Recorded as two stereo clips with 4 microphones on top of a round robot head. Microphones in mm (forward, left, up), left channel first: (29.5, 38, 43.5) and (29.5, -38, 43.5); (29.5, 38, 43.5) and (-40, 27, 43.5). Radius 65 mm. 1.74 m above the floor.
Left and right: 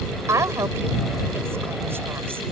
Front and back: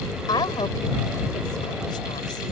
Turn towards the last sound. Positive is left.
turn(degrees=-30)